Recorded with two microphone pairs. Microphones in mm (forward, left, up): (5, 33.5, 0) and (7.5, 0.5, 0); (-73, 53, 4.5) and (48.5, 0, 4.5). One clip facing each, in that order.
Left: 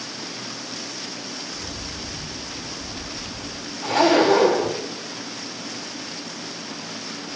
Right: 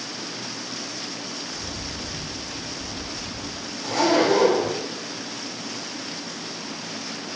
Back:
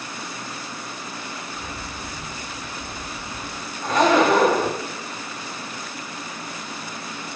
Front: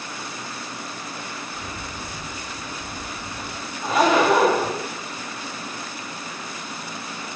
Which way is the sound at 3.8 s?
60° left.